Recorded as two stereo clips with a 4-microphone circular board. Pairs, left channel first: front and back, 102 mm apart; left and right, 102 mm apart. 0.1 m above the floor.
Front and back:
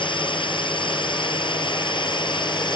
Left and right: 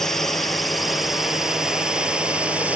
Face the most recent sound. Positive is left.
turn(degrees=-15)